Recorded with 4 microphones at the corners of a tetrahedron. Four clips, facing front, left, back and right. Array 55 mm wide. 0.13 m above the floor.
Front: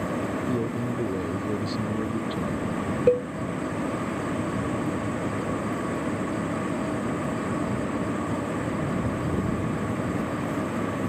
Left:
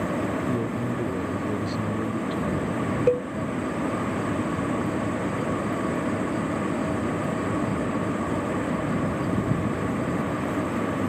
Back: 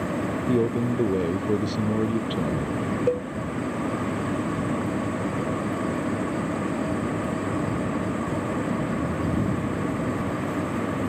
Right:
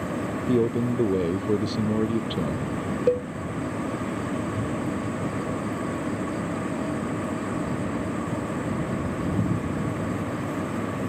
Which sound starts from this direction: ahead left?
A cowbell, at 3.1 s.